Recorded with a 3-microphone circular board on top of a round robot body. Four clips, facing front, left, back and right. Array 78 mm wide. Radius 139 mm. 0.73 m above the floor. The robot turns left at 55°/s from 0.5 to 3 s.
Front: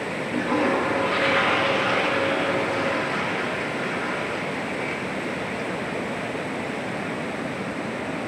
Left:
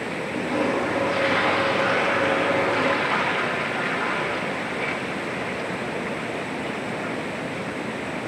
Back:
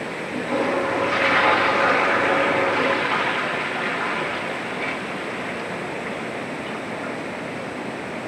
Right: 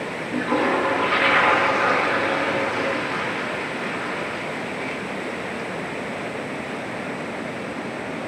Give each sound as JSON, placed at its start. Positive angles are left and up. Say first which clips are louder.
{"t": 0.3, "sound": "a toilet flushing", "louder": "right 3 dB, even", "azimuth_deg": -75, "distance_m": 1.4}